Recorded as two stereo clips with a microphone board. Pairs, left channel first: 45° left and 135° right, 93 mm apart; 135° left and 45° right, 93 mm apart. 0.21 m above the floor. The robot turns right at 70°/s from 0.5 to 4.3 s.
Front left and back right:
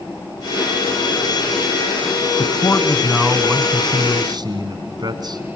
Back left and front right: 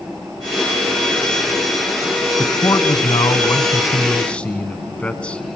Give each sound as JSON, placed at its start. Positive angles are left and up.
{"t": 2.4, "sound": "a man speaking", "azimuth_deg": 75, "distance_m": 1.4}